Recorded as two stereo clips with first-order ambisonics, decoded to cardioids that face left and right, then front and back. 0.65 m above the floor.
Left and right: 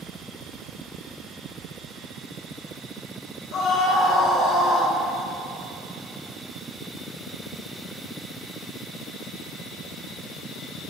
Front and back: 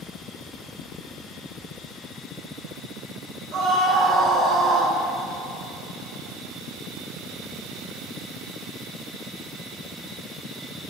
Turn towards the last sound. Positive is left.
turn(degrees=150)